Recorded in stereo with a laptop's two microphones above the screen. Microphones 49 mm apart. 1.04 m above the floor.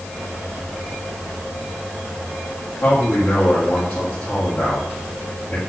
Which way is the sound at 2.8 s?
45° left (ahead or behind).